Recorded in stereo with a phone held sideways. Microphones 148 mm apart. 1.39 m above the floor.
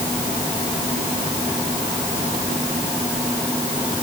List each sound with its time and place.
Only background noise.